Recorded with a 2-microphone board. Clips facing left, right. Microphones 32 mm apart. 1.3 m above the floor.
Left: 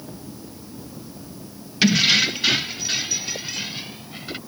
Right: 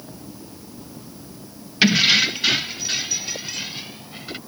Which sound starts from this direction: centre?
Keys jangling, at 1.8 s.